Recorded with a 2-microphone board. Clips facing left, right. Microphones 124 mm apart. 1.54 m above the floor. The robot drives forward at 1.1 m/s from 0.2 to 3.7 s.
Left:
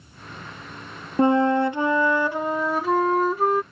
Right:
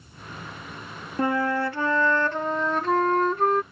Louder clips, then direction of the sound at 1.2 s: Left 6 dB; 25° left (ahead or behind).